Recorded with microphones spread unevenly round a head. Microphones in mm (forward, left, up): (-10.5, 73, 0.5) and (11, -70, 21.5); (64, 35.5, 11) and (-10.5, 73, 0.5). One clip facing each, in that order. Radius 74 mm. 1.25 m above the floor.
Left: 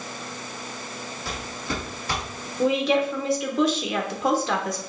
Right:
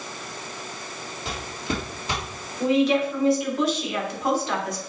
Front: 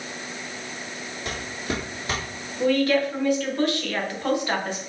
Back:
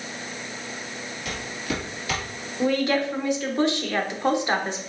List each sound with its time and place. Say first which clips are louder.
1.2 s footsteps: right 2 dB, front 1 dB; 35° right, 1.4 m
2.6 s a woman speaking: right 1 dB, front 2 dB; 85° left, 1.2 m